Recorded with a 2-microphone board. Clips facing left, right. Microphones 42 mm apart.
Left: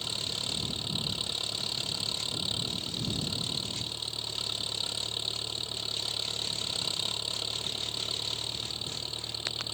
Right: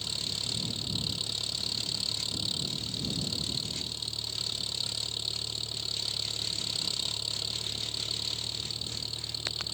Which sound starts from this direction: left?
An engine running, at 0.0 s.